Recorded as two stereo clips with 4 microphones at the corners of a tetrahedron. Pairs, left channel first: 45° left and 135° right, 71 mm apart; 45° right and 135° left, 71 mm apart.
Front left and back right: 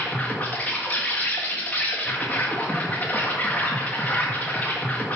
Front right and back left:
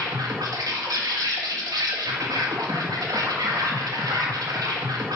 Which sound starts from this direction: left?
An insect, at 0.0 s.